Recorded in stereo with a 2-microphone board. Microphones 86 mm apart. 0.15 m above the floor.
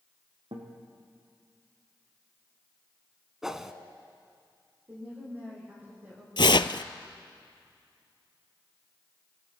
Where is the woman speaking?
25° right (ahead or behind), 9.5 m.